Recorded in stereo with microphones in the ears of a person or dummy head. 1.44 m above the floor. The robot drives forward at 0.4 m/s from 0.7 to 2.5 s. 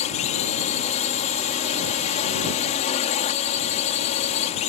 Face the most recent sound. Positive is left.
turn(degrees=35)  # may be behind; listen again after turning